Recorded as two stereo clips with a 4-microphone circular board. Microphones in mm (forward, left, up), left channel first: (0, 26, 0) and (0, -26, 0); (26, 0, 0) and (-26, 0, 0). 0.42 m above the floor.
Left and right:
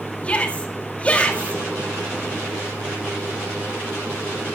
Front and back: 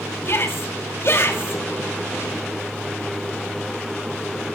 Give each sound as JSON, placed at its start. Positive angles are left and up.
{"t": 0.2, "sound": "a shout", "azimuth_deg": 25, "distance_m": 2.5}